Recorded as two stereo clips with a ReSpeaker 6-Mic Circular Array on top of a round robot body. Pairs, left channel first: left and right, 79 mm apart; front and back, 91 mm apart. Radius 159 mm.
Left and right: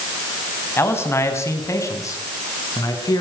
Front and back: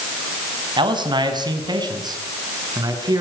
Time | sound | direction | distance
0.8 | a man speaking | 150° left | 5 m